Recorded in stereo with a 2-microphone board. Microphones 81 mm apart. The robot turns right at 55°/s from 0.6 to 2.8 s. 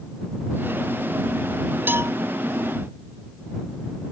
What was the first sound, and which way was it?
A cowbell, 25° right (ahead or behind).